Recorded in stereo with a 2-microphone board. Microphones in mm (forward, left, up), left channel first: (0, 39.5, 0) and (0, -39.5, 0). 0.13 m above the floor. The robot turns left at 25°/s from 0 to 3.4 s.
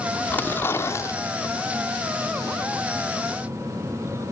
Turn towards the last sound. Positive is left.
turn(degrees=80)